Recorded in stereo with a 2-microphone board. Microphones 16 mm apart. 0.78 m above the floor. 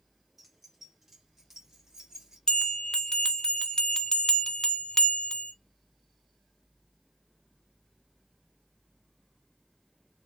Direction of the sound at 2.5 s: 55° left (ahead or behind).